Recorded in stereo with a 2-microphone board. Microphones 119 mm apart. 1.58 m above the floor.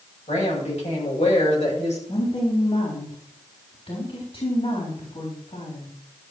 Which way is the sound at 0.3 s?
75° left (ahead or behind).